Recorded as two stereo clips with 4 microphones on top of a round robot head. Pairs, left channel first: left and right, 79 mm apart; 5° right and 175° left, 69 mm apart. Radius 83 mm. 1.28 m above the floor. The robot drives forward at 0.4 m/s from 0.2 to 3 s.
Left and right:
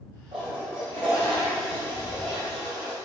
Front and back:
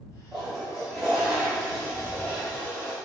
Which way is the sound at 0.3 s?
100° right.